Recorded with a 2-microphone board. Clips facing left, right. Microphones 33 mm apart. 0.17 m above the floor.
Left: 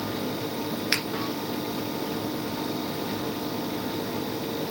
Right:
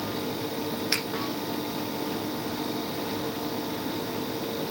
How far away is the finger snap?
About 1.8 m.